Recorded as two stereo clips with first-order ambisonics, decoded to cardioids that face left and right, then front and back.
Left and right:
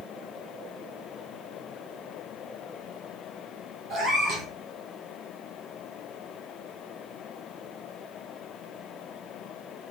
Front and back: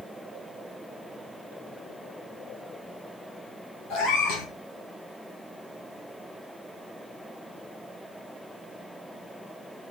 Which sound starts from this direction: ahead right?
A cat meowing, at 3.9 s.